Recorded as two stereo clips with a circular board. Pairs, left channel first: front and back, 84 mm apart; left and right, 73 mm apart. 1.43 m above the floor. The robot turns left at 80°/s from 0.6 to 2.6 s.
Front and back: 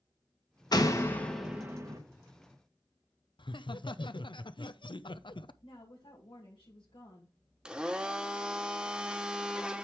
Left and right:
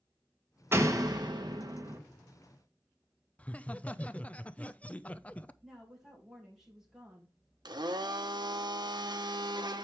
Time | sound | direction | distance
0.7 | a door slam | 35° right | 1.2 m
3.4 | laughter | 20° left | 0.6 m
5.6 | a woman speaking | 5° right | 2.5 m
7.7 | a blender | 100° right | 0.9 m